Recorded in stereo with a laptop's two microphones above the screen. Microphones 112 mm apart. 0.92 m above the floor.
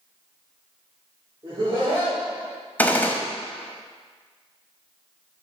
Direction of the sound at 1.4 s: 55° right (ahead or behind).